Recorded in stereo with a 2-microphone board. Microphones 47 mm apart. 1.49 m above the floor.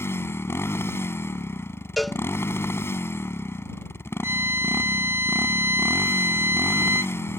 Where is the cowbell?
Centre (ahead or behind).